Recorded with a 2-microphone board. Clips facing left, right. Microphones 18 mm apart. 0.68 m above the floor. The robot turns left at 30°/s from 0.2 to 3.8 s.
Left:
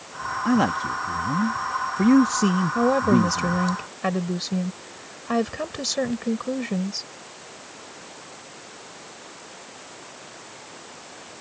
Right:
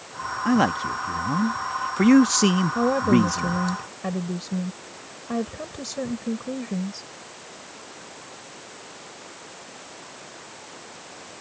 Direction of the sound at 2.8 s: 170° left.